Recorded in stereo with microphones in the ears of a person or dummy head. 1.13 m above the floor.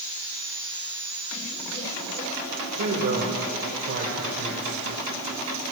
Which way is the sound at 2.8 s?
60° right (ahead or behind).